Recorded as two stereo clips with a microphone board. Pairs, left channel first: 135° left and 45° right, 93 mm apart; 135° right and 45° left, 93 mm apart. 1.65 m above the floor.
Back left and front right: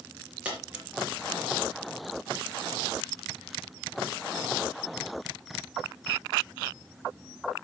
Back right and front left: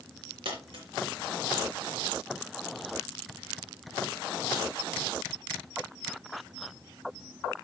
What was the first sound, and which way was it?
A dropped coin, 30° left.